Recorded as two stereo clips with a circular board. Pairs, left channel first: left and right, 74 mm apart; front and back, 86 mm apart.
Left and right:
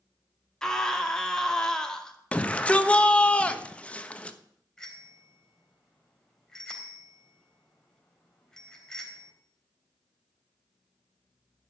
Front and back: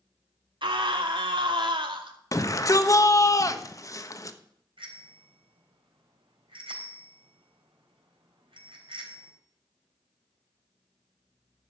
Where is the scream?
170° left, 2.0 m.